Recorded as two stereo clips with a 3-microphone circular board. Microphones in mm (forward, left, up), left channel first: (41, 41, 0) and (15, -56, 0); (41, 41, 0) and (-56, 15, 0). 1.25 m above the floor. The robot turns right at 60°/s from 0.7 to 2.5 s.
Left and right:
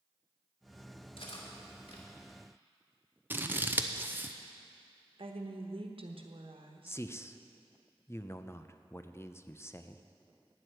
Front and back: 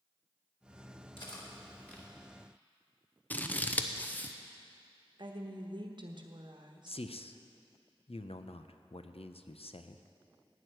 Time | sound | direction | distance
1.2 | cutlery clinking | 50° left | 2.5 m
3.3 | scissors | 45° right | 0.7 m
5.2 | a woman speaking | 125° right | 1.2 m
6.9 | a man speaking | 10° left | 0.6 m